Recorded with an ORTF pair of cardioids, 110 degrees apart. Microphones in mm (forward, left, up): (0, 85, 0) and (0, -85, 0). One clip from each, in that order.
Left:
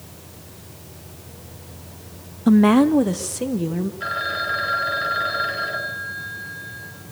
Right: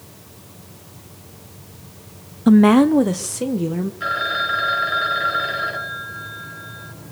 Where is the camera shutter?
I don't hear a camera shutter.